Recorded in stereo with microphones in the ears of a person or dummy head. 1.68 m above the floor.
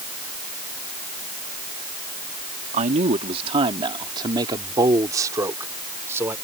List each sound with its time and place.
2.7 s a man speaking: 45° right (ahead or behind); by 6.3 s 15° right (ahead or behind)